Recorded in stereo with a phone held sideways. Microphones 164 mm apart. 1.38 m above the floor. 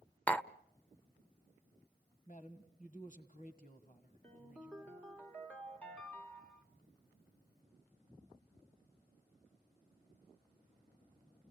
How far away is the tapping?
About 0.6 m.